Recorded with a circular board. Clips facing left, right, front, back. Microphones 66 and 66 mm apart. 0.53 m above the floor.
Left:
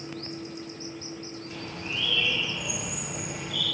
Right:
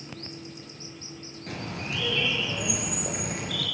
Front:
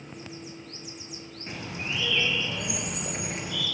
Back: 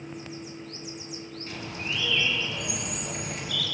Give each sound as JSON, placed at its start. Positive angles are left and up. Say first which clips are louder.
{"t": 1.5, "sound": "a bird", "louder": "right 4 dB, front 1 dB", "azimuth_deg": -65, "distance_m": 5.0}